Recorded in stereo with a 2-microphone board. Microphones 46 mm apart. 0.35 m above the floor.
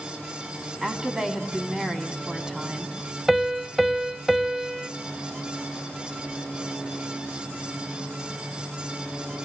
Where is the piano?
5° right (ahead or behind), 0.7 m.